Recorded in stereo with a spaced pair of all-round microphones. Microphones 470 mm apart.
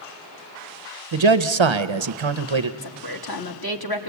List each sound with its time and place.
1.1 s a man speaking: 70° right (ahead or behind), 0.7 m
2.8 s a woman speaking: 50° left (ahead or behind), 1.3 m